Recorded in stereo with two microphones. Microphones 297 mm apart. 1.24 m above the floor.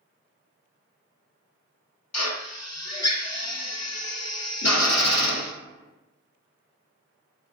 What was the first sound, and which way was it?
A drill, 55° left (ahead or behind).